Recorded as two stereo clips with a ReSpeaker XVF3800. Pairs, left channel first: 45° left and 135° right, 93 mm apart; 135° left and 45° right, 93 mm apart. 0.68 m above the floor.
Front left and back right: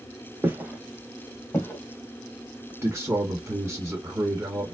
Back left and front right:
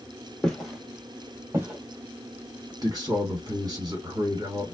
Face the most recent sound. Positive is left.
turn(degrees=-75)